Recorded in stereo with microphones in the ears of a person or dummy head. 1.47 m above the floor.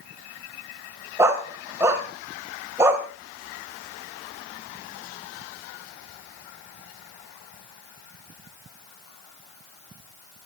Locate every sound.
1.2 s a dog barking: 15° right (ahead or behind), 2.5 m